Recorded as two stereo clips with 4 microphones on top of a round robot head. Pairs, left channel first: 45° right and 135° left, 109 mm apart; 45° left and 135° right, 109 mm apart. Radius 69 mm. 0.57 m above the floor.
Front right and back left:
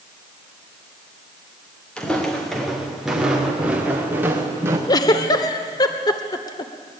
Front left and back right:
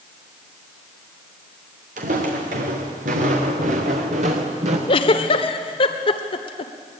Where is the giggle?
10° left, 1.6 m.